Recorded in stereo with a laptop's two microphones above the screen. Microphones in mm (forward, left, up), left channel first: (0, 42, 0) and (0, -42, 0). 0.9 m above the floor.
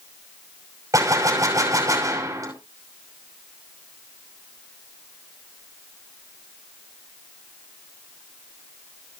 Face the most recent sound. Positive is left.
turn(degrees=-40)  # may be behind; listen again after turning